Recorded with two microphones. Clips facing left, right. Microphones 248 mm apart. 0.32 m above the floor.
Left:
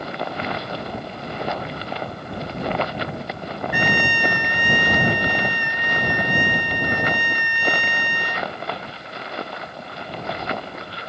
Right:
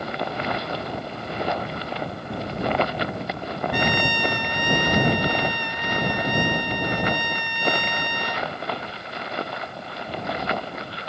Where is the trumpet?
10° left (ahead or behind).